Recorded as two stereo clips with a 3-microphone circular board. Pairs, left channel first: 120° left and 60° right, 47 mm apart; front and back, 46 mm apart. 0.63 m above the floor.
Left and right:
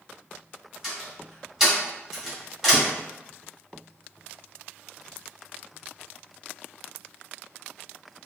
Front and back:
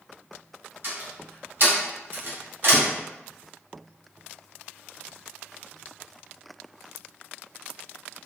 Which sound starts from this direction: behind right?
A door slam, at 0.8 s.